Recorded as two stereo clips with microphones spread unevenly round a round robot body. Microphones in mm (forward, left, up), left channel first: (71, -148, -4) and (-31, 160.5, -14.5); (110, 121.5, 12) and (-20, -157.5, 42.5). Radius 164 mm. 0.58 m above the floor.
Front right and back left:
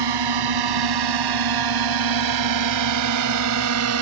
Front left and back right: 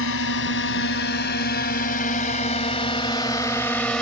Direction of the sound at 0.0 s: 115° left.